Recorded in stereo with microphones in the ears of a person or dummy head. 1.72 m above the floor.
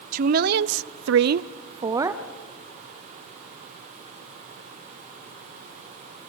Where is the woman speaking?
45° right (ahead or behind), 0.9 m; by 2.2 s 15° right (ahead or behind), 0.9 m.